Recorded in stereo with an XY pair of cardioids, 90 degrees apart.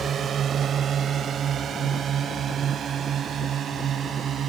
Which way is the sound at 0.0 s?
60° right.